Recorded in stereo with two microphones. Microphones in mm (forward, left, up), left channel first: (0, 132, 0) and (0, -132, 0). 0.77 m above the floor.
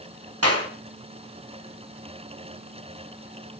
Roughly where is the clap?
Right.